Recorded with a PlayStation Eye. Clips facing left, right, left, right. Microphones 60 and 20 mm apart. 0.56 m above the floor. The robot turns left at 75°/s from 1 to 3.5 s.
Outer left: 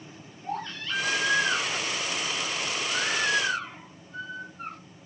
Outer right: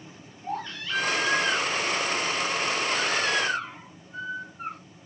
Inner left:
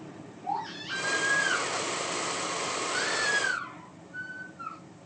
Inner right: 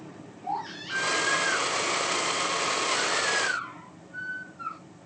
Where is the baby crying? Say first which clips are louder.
Outer right 1 dB, inner right 1 dB; 175° right, 9 m; by 4.8 s 5° right, 9 m.